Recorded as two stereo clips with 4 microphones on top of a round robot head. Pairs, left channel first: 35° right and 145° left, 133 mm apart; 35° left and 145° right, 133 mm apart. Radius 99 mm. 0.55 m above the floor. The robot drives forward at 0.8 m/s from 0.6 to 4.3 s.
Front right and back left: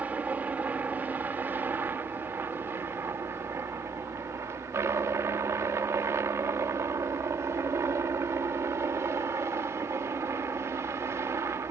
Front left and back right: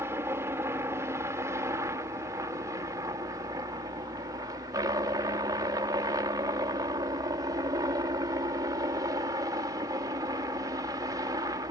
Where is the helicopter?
160° right; by 11.7 s 170° right.